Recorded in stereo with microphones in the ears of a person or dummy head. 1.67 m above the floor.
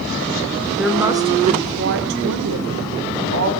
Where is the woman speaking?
Centre (ahead or behind), 0.7 m; by 3.5 s 80° right, 1.5 m.